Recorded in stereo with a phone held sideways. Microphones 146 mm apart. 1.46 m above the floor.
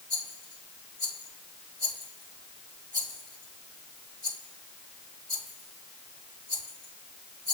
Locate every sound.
0.1 s a rattle: 75° right (ahead or behind), 4 m